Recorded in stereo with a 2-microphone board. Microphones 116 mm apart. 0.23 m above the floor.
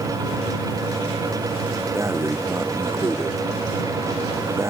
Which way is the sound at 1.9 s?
25° right (ahead or behind).